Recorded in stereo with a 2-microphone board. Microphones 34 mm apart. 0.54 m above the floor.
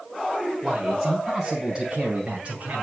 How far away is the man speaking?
About 3.5 m.